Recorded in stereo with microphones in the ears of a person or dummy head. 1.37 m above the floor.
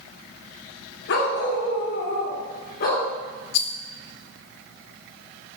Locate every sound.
1.1 s a dog barking: 60° left (ahead or behind), 1.4 m; by 3.1 s 55° left (ahead or behind), 2.5 m
3.5 s a rattle: 65° left (ahead or behind), 0.9 m